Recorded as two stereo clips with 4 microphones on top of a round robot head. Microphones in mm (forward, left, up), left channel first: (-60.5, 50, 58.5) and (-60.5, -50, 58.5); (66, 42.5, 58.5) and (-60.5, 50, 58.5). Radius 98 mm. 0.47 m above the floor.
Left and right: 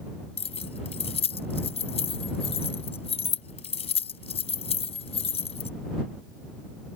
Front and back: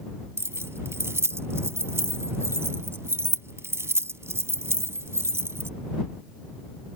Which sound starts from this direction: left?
Keys jangling, at 0.4 s.